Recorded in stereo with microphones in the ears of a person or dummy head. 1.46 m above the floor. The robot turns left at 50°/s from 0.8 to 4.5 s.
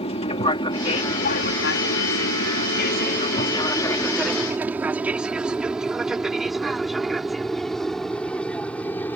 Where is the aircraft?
35° left (ahead or behind); by 9.2 s 5° left (ahead or behind).